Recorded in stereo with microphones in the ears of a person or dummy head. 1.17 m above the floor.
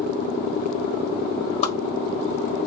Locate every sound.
1.6 s a whoosh: 40° left (ahead or behind), 1.1 m